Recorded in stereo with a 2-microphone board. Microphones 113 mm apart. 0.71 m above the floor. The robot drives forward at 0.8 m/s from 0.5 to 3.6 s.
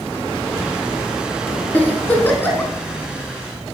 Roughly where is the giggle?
Centre.